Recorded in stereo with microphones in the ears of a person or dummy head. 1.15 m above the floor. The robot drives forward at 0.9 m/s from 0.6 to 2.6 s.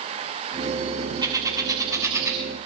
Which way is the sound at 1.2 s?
25° right (ahead or behind).